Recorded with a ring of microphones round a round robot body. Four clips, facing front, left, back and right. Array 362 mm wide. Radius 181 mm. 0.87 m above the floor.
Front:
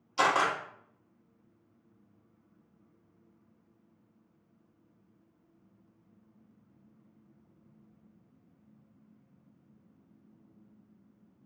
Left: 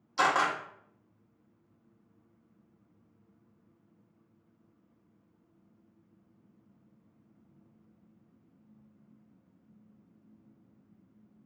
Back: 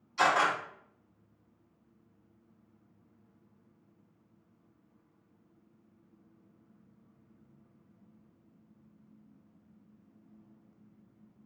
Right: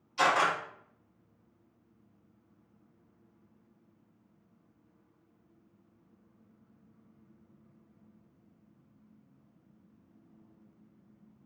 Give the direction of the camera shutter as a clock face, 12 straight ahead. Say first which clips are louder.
Even, even; 11 o'clock.